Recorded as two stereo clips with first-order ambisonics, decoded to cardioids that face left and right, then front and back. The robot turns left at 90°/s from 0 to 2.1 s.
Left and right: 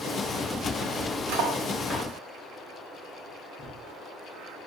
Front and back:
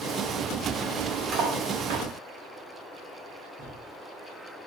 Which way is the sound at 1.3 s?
125° right.